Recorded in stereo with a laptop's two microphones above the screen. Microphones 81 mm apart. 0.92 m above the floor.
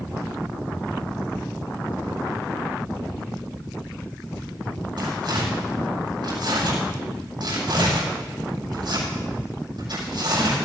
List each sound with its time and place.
5.0 s tearing paper: 70° right (ahead or behind), 7.5 m